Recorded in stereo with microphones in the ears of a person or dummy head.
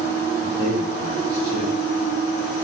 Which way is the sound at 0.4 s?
50° right (ahead or behind).